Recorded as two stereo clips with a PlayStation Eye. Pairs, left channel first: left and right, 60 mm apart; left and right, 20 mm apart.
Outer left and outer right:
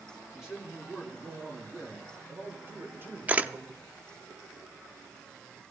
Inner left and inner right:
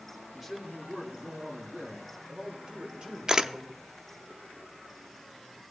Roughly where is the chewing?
I don't hear chewing.